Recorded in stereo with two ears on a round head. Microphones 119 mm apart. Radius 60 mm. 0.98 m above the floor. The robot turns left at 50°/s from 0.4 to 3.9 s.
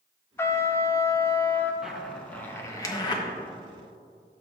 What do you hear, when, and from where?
0.4 s a trumpet: 20° left (ahead or behind), 0.5 m; by 1.7 s 15° left (ahead or behind), 0.5 m
1.8 s a zipper: 5° right (ahead or behind), 1.0 m; by 3.2 s 35° left (ahead or behind), 1.0 m